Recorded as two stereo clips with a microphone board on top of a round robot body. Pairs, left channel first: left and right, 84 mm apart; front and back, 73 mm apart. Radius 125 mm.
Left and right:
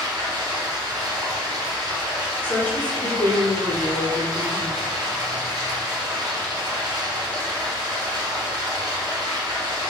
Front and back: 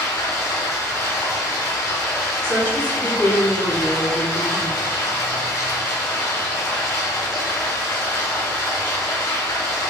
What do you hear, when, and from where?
0.0 s running water: 45° right, 0.9 m
2.4 s a woman speaking: 30° left, 1.5 m